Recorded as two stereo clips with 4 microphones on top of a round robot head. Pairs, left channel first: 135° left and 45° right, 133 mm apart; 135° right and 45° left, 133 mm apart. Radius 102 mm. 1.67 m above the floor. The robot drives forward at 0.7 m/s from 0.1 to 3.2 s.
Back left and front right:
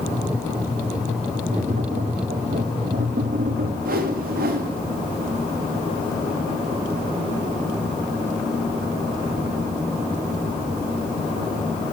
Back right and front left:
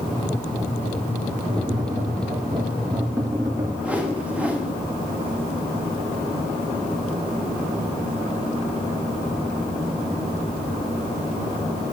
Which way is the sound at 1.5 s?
10° right.